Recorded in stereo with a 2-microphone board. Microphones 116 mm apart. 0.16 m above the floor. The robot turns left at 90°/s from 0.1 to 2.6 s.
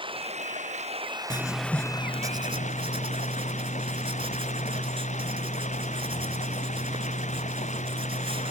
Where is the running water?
45° right; by 8.5 s 90° left.